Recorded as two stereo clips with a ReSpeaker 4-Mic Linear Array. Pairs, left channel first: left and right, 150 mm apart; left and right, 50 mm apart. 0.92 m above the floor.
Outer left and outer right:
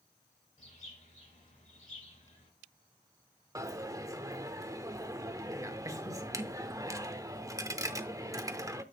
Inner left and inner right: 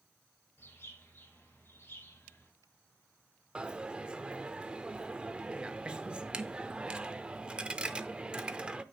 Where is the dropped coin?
20° right (ahead or behind), 0.5 m.